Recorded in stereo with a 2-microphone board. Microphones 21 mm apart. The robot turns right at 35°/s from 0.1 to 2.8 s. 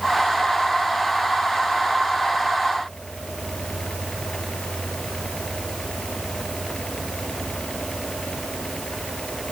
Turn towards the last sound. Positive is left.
No sound to turn to.